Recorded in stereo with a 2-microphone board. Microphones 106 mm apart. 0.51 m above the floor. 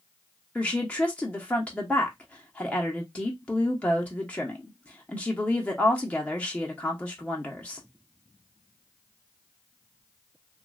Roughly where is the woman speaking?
Centre.